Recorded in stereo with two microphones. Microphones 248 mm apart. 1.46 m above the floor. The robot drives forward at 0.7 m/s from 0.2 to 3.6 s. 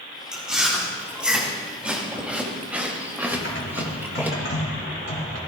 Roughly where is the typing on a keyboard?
Left.